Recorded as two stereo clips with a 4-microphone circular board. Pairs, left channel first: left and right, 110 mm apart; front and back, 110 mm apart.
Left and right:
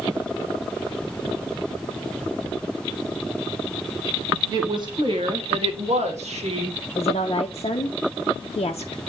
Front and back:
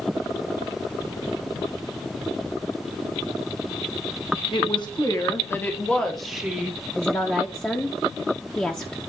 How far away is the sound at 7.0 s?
About 0.6 m.